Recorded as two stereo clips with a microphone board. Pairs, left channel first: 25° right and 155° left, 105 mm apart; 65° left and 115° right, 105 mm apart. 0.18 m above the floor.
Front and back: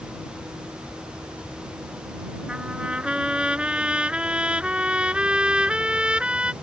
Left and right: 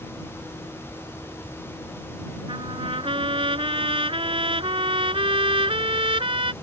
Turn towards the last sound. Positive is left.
turn(degrees=-125)